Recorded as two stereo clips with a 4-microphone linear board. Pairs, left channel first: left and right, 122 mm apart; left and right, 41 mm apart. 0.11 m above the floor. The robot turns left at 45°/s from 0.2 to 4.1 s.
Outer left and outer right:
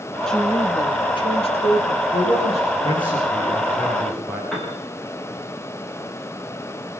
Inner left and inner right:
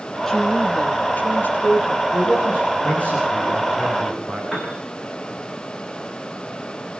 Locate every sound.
0.3 s a woman speaking: 175° left, 4 m; by 2.0 s 95° left, 4 m
2.1 s a man speaking: 80° left, 8.5 m; by 4.4 s 10° right, 8.5 m
4.5 s a piano: centre (ahead or behind), 8.5 m